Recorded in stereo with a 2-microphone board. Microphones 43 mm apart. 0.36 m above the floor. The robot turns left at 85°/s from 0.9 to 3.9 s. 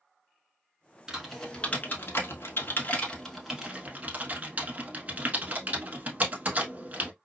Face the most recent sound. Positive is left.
turn(degrees=-40)  # may be behind; listen again after turning